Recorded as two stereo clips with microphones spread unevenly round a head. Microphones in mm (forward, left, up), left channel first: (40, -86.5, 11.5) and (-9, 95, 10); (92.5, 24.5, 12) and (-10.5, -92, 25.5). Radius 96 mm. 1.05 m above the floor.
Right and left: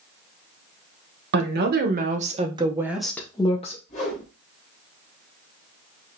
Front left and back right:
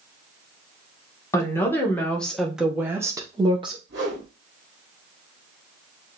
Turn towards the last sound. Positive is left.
turn(degrees=-130)